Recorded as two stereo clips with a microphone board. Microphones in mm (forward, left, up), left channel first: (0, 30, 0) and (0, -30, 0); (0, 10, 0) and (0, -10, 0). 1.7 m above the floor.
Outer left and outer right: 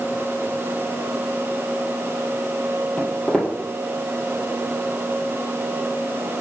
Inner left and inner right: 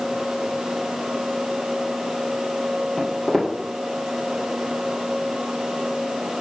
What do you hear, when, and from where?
3.0 s footsteps: 20° left (ahead or behind), 2.5 m